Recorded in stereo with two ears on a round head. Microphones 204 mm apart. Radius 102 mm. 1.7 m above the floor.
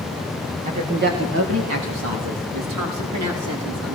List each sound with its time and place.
0.7 s a woman speaking: 30° right (ahead or behind), 2 m; by 4.0 s 70° right (ahead or behind), 5 m